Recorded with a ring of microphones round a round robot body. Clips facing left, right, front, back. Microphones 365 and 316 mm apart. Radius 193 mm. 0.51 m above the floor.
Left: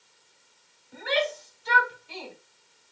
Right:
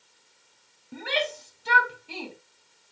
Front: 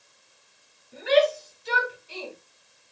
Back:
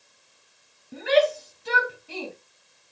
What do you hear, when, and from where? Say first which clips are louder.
0.9 s a shout: left 2 dB, even; 140° right, 3 m